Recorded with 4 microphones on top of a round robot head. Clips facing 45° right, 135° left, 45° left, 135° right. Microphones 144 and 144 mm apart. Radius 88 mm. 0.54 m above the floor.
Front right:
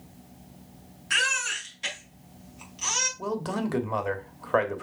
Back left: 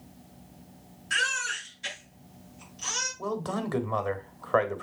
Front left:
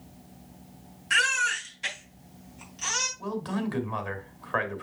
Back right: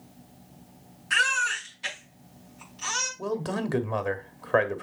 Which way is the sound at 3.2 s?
125° right.